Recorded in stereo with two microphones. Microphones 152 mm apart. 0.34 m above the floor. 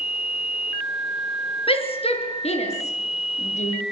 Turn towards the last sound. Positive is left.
turn(degrees=50)  # may be behind; listen again after turning